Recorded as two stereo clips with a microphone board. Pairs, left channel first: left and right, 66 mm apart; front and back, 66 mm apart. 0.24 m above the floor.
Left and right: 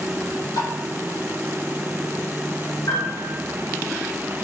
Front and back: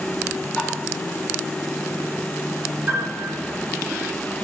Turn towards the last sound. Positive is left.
turn(degrees=115)